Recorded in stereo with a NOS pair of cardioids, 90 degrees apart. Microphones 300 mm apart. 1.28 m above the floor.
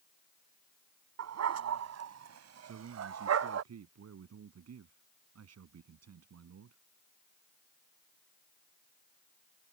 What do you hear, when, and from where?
1.2 s a dog barking: 60° right
2.6 s a man speaking: 55° right